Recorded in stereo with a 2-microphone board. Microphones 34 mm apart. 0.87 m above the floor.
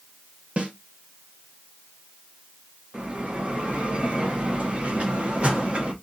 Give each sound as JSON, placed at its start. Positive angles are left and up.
{"t": 0.6, "sound": "a snare drum", "side_deg": -40, "distance_m": 0.7}
{"t": 2.9, "sound": "a bell", "side_deg": -40, "distance_m": 0.8}